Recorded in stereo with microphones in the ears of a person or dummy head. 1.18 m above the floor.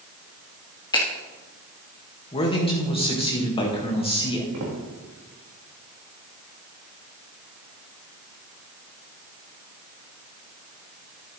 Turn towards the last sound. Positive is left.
turn(degrees=-75)  # may be behind; listen again after turning